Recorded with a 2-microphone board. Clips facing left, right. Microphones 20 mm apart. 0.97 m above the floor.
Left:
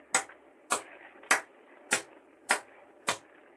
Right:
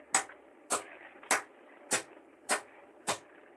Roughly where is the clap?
Left.